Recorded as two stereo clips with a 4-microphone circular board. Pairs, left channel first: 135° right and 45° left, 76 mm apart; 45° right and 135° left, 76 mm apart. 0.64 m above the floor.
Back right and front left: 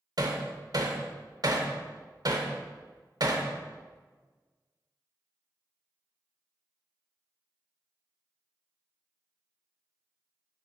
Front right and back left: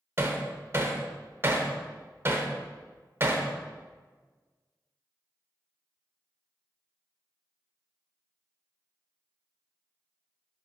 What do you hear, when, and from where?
0.2 s hammering: 75° left, 1.0 m